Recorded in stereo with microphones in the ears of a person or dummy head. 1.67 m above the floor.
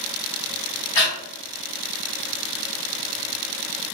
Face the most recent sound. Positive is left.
turn(degrees=20)  # may be behind; listen again after turning